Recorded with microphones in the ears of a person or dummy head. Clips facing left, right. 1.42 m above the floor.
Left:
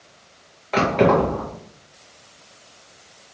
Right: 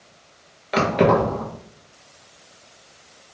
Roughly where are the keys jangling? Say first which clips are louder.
Left 1 dB; centre.